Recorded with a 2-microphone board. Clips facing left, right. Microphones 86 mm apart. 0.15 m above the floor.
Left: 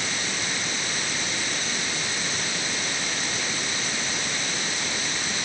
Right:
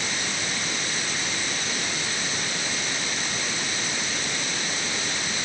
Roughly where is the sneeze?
No sneeze in this recording.